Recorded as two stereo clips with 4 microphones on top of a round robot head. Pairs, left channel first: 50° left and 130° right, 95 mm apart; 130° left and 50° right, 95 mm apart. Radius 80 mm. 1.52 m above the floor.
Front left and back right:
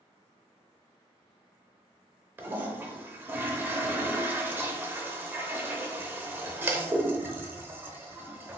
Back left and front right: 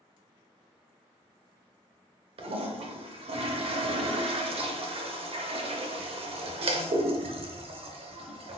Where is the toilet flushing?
60° right, 0.6 m.